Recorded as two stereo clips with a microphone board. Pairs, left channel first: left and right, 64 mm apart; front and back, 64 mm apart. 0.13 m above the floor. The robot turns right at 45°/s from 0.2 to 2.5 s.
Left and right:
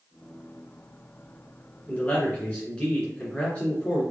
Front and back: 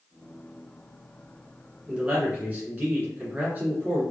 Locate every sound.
1.9 s a man speaking: 115° left, 1.8 m; by 4.0 s 140° left, 1.8 m